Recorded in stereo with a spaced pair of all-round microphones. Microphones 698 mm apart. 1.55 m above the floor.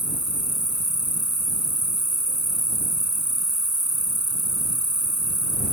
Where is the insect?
20° right (ahead or behind).